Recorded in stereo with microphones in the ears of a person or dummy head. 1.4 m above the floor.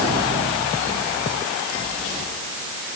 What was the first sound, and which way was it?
Only background noise.